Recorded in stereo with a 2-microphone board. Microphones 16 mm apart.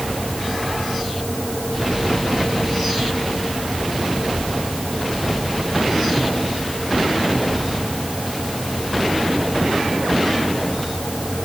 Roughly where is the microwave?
I don't hear a microwave.